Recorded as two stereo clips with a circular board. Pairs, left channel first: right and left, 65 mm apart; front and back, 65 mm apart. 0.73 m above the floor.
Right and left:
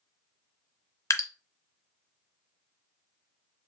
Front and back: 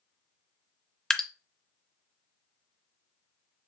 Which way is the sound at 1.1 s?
75° right.